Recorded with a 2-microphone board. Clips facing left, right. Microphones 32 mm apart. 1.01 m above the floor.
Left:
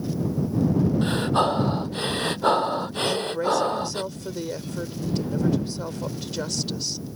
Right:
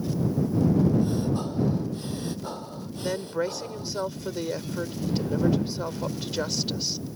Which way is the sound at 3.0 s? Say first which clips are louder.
Left 3 dB; 15° right (ahead or behind).